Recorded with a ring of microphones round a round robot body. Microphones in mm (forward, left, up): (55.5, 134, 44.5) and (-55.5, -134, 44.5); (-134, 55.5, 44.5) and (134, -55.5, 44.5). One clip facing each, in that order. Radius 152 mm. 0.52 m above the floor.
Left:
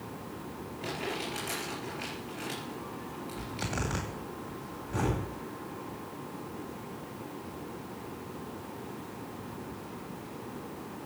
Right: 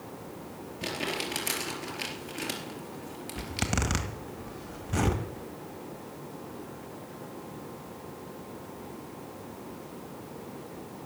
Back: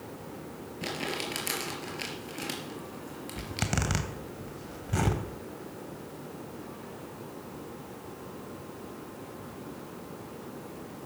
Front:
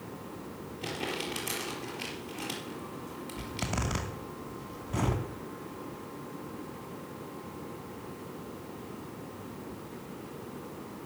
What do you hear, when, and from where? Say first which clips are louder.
0.8 s crumpling: right 2 dB, back 1 dB; 140° right, 4.5 m
3.4 s a zipper: right 5 dB, back 3 dB; 155° right, 2 m